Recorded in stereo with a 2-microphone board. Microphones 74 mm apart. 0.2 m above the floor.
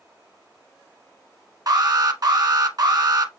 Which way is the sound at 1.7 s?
60° right (ahead or behind).